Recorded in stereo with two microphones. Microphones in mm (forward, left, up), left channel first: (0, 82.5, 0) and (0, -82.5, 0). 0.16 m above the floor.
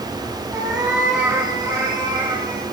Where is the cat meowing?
25° right (ahead or behind), 4.5 m; by 2.6 s 30° right (ahead or behind), 6 m.